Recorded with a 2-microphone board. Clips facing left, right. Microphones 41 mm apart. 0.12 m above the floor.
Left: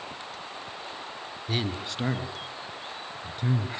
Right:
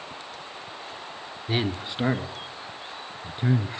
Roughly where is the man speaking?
Centre.